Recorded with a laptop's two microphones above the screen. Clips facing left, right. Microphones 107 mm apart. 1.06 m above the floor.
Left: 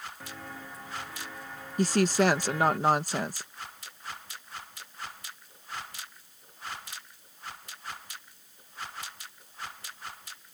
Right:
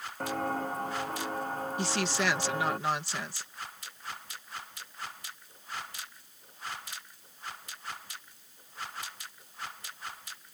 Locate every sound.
0.2 s footsteps: 55° right (ahead or behind); by 2.8 s 35° right (ahead or behind)
1.8 s a woman speaking: 45° left (ahead or behind)